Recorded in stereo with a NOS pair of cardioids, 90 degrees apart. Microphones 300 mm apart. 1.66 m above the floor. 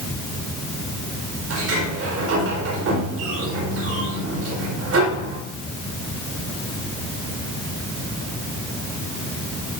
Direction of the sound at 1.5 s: 50° right.